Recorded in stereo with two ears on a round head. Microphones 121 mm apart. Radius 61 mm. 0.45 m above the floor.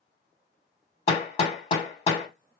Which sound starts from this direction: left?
Hammering, at 1.1 s.